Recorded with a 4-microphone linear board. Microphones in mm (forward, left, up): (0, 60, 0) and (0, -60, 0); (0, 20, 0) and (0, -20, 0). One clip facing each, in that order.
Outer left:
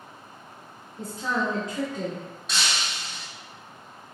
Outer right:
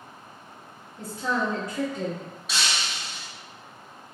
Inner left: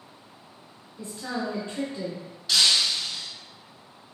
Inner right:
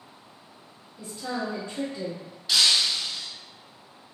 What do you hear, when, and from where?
1.0 s a woman speaking: 20° left (ahead or behind), 1.6 m
2.5 s breaking glass: centre (ahead or behind), 0.5 m